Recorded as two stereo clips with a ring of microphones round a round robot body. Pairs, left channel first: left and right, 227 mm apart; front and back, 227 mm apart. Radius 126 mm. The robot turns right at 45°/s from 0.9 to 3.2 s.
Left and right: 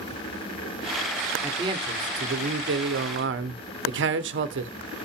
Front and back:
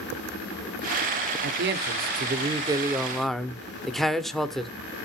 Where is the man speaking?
170° right, 0.9 m; by 4.7 s 90° right, 0.9 m.